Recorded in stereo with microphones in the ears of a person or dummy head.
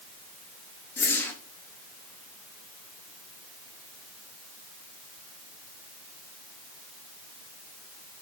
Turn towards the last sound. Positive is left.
turn(degrees=10)  # may be behind; listen again after turning